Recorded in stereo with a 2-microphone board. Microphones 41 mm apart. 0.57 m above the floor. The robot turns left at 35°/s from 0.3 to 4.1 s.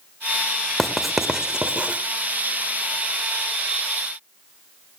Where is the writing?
10° left (ahead or behind), 1.4 m; by 2.0 s 30° right (ahead or behind), 1.4 m.